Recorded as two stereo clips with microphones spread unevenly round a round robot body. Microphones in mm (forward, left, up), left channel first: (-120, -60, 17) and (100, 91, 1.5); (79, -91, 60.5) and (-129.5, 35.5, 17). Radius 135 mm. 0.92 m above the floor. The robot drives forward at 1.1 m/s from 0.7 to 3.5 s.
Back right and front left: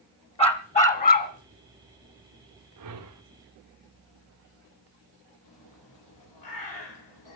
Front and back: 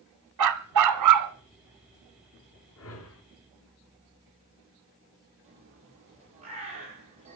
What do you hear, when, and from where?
0.4 s a dog barking: 150° left, 1.1 m; by 1.3 s 160° left, 1.7 m
2.8 s a whoosh: 10° left, 3 m
5.4 s a bird: 150° right, 9 m